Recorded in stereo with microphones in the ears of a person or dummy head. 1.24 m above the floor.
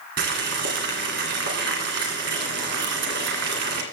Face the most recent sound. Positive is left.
turn(degrees=-60)  # may be behind; listen again after turning